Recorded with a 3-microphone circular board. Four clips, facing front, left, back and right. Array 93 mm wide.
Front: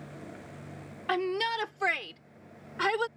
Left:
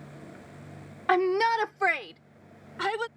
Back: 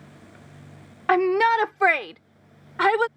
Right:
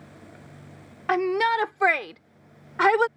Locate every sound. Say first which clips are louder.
1.1 s a shout: right 1 dB, back 11 dB; 175° left; by 3.1 s 120° right